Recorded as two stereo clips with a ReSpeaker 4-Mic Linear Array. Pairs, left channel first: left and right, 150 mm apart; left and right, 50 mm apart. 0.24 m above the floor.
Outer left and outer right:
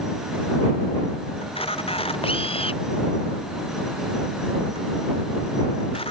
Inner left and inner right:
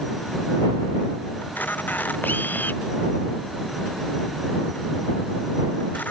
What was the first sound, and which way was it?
A camera shutter, 40° left (ahead or behind).